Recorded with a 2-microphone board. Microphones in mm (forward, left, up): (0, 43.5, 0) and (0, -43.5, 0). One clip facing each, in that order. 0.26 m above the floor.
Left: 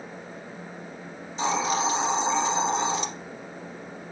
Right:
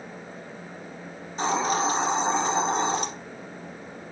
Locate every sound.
1.4 s a hiss: 45° right (ahead or behind), 1.8 m